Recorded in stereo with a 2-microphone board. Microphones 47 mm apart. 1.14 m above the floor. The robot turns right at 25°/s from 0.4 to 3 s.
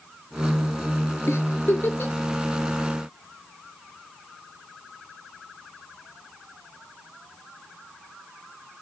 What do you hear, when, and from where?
1.3 s a giggle: 65° left (ahead or behind), 3 m; by 2.1 s 45° left (ahead or behind), 3 m